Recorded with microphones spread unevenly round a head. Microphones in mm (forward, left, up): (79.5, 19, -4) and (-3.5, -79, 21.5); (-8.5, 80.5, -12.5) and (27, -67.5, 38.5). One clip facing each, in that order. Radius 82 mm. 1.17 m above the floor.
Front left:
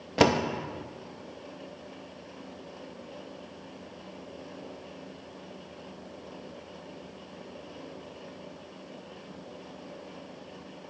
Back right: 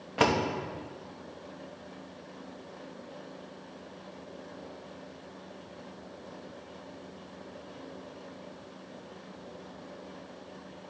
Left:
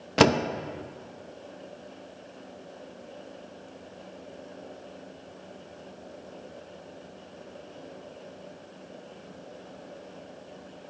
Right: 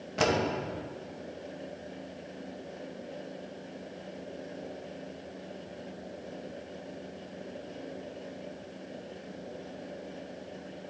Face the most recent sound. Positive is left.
turn(degrees=115)